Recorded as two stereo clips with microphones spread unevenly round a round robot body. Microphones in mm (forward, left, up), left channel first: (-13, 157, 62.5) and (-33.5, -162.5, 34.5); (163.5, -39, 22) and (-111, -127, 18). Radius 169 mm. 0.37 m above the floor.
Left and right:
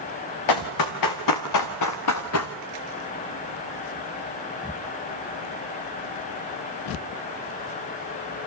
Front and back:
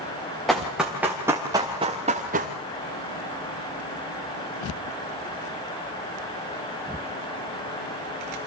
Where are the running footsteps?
105° left, 3 m; by 2.5 s 135° left, 2.0 m.